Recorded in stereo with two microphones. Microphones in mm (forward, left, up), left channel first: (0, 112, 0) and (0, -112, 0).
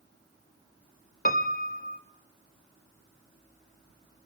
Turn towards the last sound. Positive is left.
turn(degrees=40)  # may be behind; listen again after turning